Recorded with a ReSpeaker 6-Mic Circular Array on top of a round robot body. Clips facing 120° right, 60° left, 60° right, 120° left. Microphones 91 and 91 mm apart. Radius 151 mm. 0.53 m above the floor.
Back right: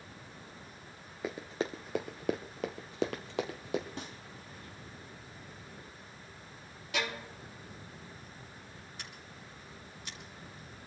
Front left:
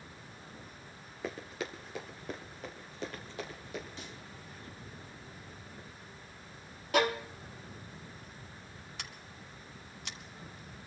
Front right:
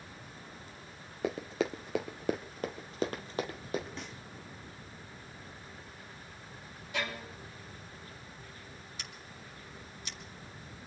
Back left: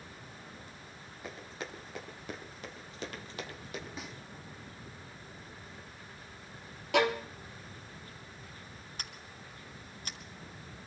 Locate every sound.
1.2 s running footsteps: 35° right, 0.6 m; by 3.9 s 120° right, 1.4 m
4.0 s a snare drum: 155° right, 3.5 m
6.9 s a violin: 105° left, 1.3 m
9.0 s scissors: 75° left, 1.1 m